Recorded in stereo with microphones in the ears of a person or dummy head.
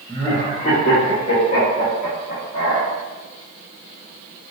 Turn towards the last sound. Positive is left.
turn(degrees=65)  # may be behind; listen again after turning